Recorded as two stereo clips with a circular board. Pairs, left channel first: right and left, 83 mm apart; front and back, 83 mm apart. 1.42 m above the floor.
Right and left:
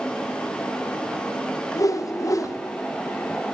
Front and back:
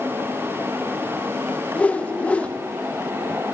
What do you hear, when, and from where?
1.8 s a whoosh: 65° right, 0.6 m